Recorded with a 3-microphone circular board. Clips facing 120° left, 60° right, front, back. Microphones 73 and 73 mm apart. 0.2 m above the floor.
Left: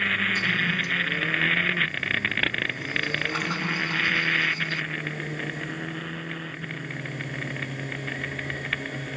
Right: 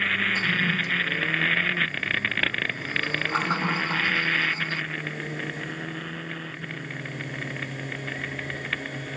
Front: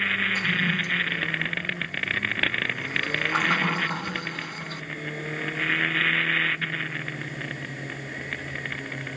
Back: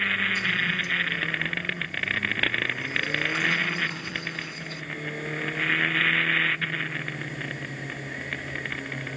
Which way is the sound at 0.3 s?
10° right.